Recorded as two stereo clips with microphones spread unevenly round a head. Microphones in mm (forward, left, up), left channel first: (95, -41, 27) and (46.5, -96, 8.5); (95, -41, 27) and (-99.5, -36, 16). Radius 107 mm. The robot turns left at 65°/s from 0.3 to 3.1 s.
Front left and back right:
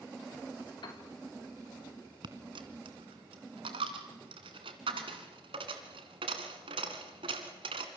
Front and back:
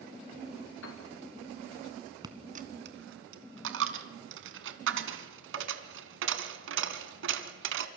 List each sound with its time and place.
0.8 s a piano: 30° left, 4 m; by 1.0 s 20° left, 4 m
2.2 s a dropped coin: 110° right, 2 m; by 7.9 s 165° right, 2 m